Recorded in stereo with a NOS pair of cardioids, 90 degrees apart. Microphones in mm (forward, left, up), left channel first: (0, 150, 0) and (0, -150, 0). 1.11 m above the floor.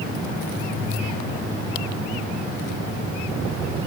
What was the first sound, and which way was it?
Only background noise.